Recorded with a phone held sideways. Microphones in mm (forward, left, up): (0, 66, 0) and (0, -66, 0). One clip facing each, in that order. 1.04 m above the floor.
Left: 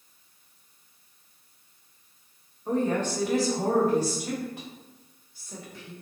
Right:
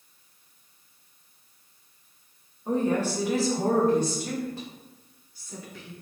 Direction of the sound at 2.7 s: 15° right (ahead or behind).